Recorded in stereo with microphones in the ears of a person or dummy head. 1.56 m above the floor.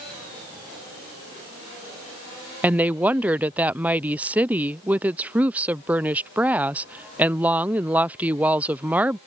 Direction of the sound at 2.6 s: 10° right (ahead or behind).